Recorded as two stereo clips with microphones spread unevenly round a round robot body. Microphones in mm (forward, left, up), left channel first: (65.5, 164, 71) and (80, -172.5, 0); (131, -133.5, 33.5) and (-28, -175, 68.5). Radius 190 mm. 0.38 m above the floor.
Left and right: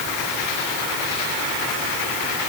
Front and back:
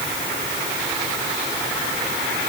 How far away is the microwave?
I don't hear a microwave.